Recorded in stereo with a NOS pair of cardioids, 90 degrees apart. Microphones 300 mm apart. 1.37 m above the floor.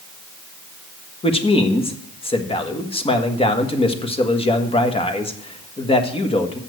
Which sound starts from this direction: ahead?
A man speaking, at 1.2 s.